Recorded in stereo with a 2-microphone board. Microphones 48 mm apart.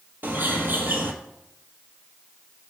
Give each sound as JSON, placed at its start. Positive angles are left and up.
{"t": 0.2, "sound": "a bird", "side_deg": -45, "distance_m": 0.9}